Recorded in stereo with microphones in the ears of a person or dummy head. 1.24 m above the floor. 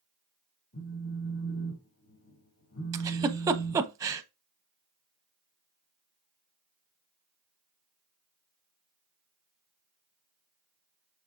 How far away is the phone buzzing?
About 2.5 m.